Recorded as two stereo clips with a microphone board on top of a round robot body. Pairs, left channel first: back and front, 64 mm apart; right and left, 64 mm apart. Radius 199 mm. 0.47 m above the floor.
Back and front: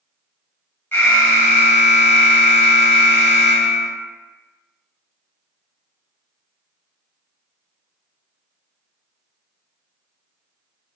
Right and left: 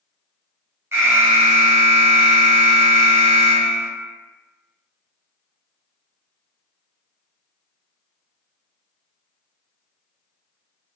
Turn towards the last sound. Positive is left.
turn(degrees=135)